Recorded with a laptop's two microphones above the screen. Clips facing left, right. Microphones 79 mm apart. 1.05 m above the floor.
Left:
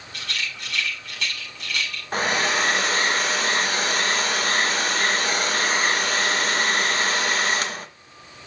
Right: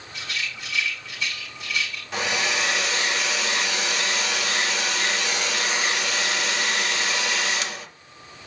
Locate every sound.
0.1 s a rattle: 85° left, 6 m
2.1 s a hair dryer: 45° left (ahead or behind), 0.7 m